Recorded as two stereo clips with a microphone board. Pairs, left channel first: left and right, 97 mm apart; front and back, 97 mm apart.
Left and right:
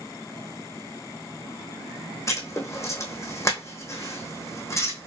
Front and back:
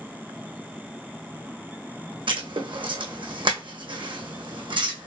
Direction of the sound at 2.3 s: 150° left.